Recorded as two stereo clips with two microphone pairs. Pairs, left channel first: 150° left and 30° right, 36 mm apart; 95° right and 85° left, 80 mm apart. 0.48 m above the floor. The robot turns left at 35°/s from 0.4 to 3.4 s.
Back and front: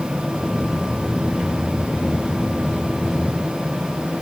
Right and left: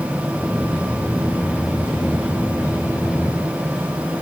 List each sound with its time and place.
Only background noise.